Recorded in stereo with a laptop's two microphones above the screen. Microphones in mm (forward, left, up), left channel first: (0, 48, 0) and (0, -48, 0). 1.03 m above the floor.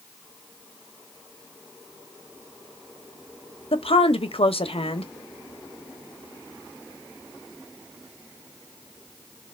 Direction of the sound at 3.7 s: 75° left (ahead or behind).